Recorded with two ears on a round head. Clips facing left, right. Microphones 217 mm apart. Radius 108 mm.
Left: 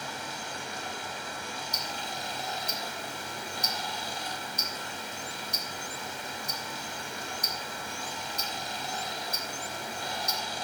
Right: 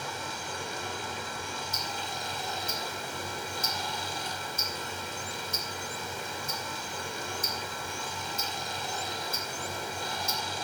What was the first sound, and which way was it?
Running water, 80° right.